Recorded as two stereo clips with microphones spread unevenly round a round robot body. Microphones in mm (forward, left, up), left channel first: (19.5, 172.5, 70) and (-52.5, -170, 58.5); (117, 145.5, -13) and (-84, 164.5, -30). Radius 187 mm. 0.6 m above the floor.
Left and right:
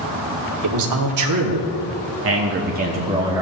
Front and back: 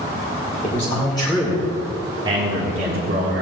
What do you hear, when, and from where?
0.6 s a man speaking: 75° right, 1.8 m; by 3.4 s straight behind, 1.5 m